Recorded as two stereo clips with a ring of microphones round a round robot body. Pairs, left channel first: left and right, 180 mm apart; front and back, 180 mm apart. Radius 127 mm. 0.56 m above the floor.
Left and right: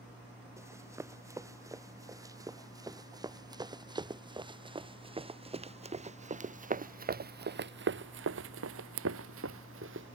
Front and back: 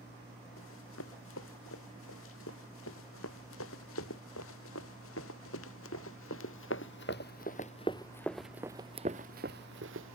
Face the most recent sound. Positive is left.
turn(degrees=-140)